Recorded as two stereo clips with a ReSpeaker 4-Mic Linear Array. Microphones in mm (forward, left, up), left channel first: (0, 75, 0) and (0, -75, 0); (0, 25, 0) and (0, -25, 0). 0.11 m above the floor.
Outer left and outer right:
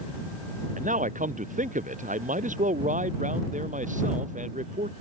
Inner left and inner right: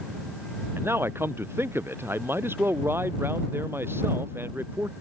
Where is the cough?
I don't hear a cough.